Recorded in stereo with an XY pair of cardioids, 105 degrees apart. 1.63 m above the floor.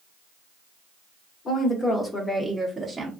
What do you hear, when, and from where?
1.4 s a woman speaking: 40° left, 1.3 m; by 3.1 s 30° right, 0.9 m